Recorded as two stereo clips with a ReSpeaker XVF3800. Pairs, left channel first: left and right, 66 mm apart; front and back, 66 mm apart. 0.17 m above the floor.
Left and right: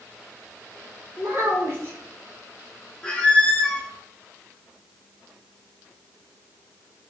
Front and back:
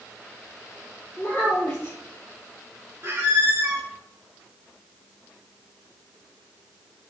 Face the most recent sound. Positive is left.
turn(degrees=155)